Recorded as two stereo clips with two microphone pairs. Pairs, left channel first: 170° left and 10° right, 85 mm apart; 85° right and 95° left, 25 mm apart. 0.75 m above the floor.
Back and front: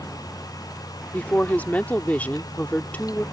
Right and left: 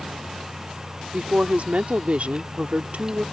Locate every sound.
1.1 s a woman speaking: 100° left